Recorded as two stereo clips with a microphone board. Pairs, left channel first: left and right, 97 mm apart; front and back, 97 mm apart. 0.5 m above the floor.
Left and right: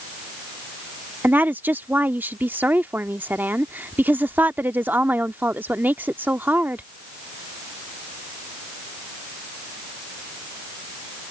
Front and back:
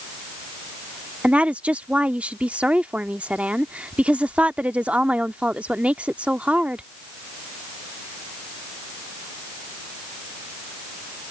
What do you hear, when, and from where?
1.2 s a woman speaking: 125° right